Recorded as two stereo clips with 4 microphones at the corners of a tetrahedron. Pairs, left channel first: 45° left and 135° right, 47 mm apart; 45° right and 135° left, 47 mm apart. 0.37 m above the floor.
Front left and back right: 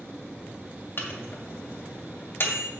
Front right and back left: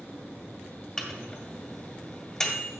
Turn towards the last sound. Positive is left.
turn(degrees=30)